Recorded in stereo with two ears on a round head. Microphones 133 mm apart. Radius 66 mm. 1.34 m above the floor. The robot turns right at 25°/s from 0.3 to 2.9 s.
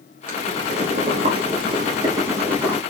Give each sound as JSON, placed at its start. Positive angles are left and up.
{"t": 0.3, "sound": "boiling", "azimuth_deg": -70, "distance_m": 1.2}